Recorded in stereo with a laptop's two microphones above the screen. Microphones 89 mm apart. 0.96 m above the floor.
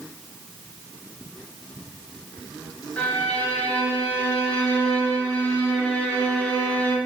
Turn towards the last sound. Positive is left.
turn(degrees=15)  # may be behind; listen again after turning